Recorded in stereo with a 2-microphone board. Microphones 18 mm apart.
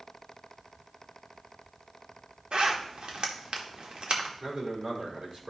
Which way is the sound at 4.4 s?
65° right (ahead or behind).